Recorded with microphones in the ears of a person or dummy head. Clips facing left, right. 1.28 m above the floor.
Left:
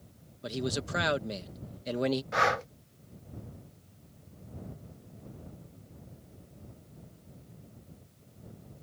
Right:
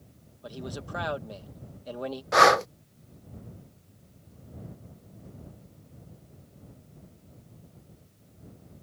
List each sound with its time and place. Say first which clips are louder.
0.4 s a man speaking: left 5 dB; 25° left (ahead or behind)
2.3 s breathing: right 9 dB; 75° right (ahead or behind)